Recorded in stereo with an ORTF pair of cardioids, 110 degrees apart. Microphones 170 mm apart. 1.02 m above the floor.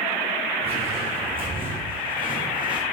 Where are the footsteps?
35° right, 5 m; by 2.8 s 30° right, 3.5 m.